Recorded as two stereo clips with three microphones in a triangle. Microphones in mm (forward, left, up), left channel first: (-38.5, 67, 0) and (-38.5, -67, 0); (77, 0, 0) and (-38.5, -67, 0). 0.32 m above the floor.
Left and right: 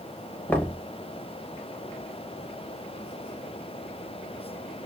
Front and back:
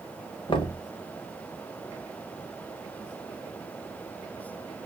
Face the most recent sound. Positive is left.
turn(degrees=25)